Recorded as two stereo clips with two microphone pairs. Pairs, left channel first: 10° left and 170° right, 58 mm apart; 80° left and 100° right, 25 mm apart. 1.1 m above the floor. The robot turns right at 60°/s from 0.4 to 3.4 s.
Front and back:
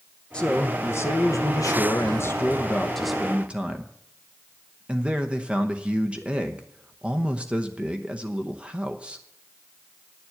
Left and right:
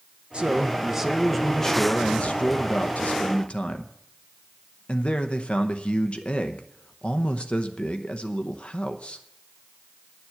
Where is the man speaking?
60° right, 0.8 m; by 9.2 s 120° left, 0.8 m.